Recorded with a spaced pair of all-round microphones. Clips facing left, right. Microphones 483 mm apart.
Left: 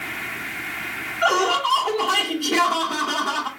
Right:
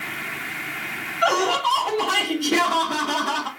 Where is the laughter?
40° right (ahead or behind), 1.9 m.